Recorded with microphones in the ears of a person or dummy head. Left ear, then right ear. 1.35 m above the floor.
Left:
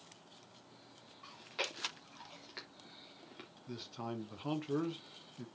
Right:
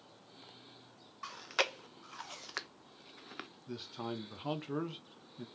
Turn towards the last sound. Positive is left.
turn(degrees=-15)  # may be behind; listen again after turning